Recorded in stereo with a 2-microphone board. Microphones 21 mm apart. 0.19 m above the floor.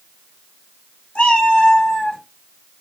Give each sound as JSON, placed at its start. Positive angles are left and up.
{"t": 1.1, "sound": "a cat meowing", "side_deg": 65, "distance_m": 1.4}